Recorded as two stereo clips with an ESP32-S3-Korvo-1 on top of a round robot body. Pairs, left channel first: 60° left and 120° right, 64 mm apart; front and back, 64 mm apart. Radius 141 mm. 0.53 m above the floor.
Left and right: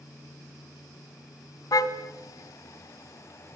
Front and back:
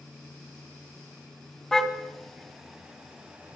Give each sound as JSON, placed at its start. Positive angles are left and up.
{"t": 1.7, "sound": "a car horn", "azimuth_deg": 85, "distance_m": 3.0}